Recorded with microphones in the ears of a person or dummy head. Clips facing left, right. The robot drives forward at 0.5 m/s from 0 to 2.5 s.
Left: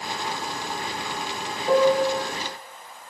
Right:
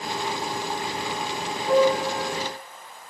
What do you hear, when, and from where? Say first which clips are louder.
1.7 s a piano: left 1 dB; 40° left (ahead or behind), 1.7 m; by 2.3 s 35° left (ahead or behind), 1.9 m